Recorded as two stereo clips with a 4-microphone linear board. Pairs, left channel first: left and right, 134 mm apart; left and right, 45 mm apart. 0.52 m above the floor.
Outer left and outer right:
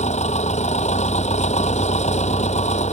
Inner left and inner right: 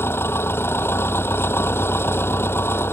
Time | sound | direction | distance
0.0 | an engine running | 55° left (ahead or behind) | ?